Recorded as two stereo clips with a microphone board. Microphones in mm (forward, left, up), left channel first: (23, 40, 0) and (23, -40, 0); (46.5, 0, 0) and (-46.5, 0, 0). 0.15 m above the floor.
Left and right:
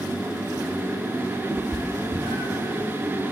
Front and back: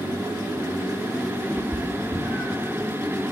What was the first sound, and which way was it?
A cat meowing, 75° right.